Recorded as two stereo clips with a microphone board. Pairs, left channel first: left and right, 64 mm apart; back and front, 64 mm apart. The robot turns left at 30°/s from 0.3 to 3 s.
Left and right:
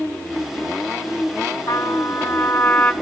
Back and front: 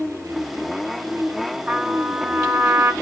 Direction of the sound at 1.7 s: 65° left.